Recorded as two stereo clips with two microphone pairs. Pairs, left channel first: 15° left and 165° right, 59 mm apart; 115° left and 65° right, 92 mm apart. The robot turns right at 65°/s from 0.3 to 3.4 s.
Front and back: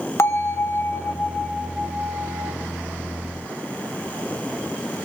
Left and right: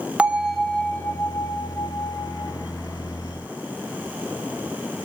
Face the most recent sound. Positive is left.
turn(degrees=-155)